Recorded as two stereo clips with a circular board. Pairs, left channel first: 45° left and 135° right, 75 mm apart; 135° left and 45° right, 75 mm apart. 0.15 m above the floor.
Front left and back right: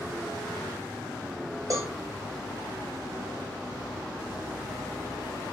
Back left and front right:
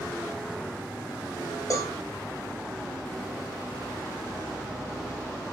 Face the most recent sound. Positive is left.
turn(degrees=180)